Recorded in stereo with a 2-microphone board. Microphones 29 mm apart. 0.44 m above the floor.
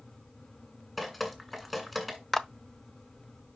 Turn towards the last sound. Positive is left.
turn(degrees=10)  # may be behind; listen again after turning